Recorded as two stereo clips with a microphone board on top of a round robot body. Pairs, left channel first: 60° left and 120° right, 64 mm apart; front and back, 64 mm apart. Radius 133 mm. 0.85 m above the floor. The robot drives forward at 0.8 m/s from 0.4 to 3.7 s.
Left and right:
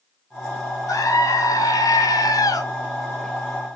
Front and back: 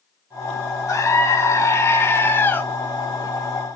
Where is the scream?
35° left, 3 m; by 2.6 s 60° left, 2 m.